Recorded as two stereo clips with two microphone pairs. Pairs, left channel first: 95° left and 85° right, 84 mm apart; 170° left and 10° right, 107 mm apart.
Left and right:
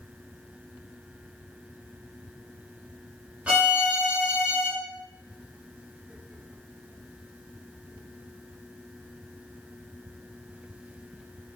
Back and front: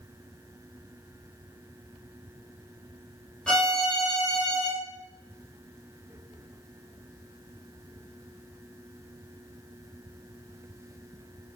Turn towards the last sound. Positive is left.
turn(degrees=-120)